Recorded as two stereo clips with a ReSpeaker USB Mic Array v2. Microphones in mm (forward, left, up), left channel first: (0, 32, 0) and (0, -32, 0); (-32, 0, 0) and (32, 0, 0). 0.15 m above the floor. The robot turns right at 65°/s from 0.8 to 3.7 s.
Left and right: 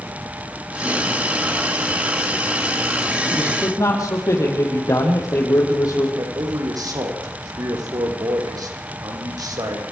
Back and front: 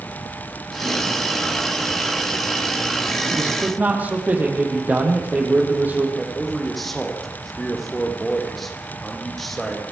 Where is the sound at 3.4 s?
40° left, 5.5 m; by 6.1 s 60° left, 5.5 m.